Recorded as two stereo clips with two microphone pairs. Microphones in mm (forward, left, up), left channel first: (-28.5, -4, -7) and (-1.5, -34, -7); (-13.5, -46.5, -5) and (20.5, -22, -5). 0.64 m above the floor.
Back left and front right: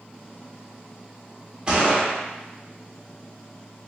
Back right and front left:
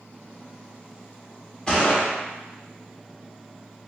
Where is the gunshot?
100° right, 1.2 m.